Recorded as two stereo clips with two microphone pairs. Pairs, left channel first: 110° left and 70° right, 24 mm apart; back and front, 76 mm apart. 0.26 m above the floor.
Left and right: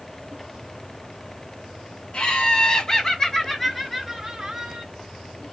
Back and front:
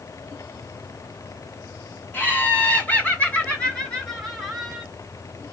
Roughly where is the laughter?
Behind left.